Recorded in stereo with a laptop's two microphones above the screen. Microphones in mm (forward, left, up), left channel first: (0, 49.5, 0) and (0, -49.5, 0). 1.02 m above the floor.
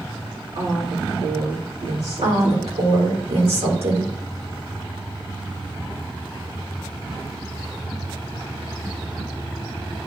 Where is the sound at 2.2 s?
85° right, 2.5 m.